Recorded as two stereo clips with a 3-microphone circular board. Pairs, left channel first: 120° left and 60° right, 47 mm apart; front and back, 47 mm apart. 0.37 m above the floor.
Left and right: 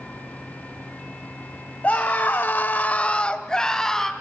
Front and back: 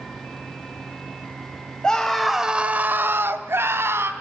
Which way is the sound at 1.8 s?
70° left.